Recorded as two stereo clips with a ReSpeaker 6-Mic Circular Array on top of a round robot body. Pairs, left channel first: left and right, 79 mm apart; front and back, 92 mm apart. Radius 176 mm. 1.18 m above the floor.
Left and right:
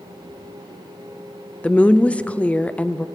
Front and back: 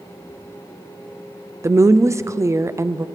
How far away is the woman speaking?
About 0.5 m.